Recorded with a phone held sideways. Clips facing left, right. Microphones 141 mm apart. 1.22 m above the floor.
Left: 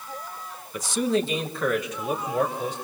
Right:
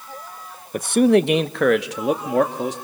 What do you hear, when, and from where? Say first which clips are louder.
0.7 s a man speaking: right 9 dB; 50° right (ahead or behind), 0.9 m; by 2.8 s 90° right, 2.5 m